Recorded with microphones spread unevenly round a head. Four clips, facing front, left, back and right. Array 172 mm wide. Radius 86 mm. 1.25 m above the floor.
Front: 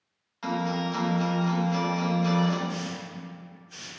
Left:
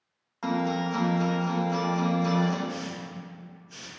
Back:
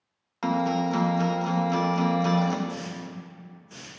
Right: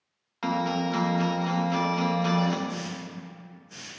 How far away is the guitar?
About 0.6 m.